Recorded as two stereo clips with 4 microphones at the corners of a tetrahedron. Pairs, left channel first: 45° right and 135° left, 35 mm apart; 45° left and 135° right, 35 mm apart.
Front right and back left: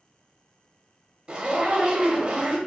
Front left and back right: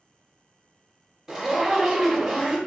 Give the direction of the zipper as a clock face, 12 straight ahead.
7 o'clock.